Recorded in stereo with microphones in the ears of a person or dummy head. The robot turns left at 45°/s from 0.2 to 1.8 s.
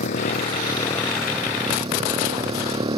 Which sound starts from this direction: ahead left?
A motorcycle, at 0.0 s.